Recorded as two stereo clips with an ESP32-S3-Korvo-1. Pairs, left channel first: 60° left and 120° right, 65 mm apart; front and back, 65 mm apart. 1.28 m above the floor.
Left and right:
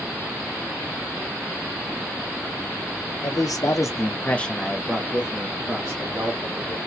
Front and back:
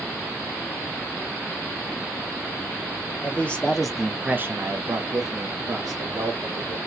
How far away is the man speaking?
About 1.1 m.